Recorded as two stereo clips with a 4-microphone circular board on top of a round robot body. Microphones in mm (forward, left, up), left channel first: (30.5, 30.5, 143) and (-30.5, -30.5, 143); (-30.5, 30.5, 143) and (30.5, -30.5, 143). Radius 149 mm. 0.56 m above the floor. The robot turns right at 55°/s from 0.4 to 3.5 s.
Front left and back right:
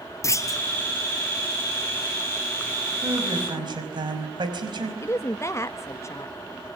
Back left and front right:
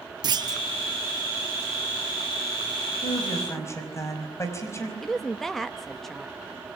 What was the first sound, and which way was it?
A clunk, 10° right.